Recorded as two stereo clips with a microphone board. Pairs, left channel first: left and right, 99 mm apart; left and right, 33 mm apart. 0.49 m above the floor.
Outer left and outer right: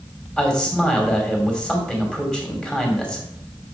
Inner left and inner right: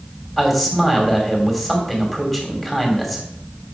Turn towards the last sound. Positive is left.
turn(degrees=10)  # may be behind; listen again after turning